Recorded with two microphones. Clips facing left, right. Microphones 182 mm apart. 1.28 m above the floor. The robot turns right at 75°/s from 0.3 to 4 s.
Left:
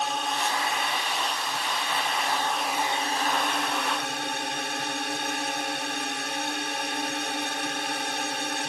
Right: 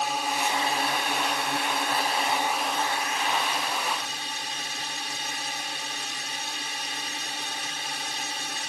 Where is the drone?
175° right; by 8.7 s 105° left.